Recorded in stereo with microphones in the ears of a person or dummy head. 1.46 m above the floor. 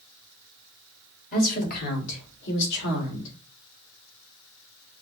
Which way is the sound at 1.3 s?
40° left (ahead or behind).